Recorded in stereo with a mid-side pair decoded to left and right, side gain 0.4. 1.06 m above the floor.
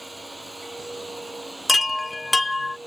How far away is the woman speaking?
No woman speaking in this recording.